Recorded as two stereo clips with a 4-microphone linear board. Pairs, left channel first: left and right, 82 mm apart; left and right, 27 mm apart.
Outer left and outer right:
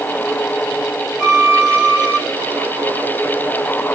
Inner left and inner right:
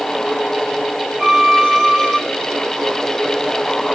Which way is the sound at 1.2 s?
20° left (ahead or behind).